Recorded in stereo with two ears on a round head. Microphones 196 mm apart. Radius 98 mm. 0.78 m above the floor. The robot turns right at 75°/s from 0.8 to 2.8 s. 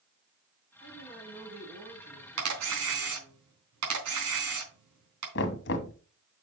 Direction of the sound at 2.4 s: 70° right (ahead or behind).